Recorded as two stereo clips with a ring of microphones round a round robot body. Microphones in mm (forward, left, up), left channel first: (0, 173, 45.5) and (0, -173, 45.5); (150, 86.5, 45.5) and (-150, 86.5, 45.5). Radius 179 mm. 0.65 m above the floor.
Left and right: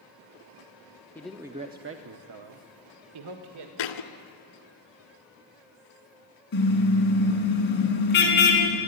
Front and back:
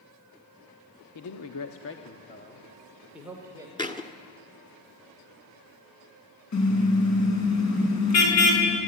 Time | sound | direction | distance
1.1 | a man speaking | 5° left | 1.1 m
3.8 | a thud | 75° left | 1.7 m
6.5 | a car horn | 30° left | 4.5 m